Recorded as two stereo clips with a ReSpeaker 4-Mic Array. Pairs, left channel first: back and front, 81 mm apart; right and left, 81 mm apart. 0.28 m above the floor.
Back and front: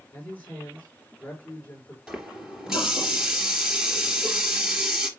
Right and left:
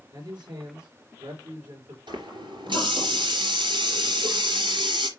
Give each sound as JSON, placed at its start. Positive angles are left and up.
{"t": 0.1, "sound": "a man speaking", "azimuth_deg": 110, "distance_m": 5.5}
{"t": 2.1, "sound": "a running tap", "azimuth_deg": 85, "distance_m": 3.5}